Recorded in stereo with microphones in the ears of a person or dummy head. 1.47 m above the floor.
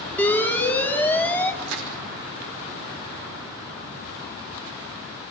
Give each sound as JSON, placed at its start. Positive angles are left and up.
{"t": 0.2, "sound": "an alarm", "side_deg": 10, "distance_m": 2.5}
{"t": 1.6, "sound": "crushing", "side_deg": -80, "distance_m": 7.5}